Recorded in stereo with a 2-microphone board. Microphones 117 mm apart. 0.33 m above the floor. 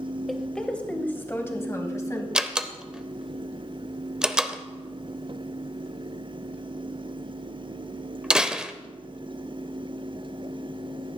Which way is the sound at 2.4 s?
5° right (ahead or behind).